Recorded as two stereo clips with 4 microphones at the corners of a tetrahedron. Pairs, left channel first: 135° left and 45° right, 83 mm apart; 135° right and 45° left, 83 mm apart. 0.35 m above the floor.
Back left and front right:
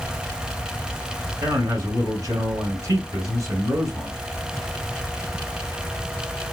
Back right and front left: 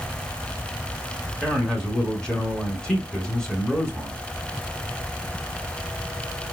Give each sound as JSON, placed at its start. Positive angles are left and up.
{"t": 1.4, "sound": "a man speaking", "azimuth_deg": -60, "distance_m": 1.9}